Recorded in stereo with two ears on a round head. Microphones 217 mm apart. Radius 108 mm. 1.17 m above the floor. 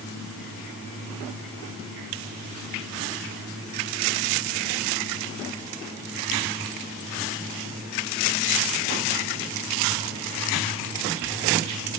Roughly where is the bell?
No bell in this recording.